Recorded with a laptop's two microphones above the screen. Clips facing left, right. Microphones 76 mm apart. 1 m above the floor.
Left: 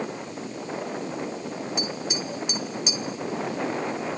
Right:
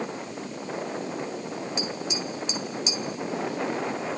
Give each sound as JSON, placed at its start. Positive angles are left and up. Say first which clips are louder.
{"t": 1.8, "sound": "tapping", "louder": "left 1 dB", "side_deg": 60, "distance_m": 1.8}